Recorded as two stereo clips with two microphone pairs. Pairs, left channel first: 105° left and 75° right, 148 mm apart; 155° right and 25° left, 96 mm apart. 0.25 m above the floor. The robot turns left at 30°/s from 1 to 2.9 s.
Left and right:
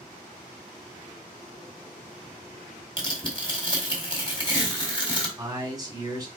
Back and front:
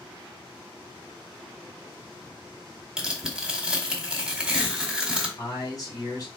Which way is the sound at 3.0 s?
100° left.